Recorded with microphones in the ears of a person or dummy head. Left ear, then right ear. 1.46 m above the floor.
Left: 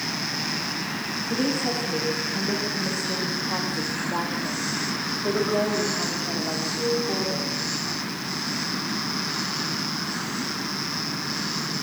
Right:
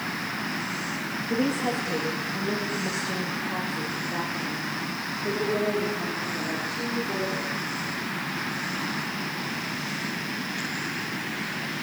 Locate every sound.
1.3 s a woman speaking: 20° right (ahead or behind), 2.5 m; by 7.5 s 55° left (ahead or behind), 4.5 m